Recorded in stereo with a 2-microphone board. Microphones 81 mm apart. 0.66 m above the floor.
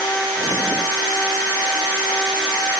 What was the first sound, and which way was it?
Only background noise.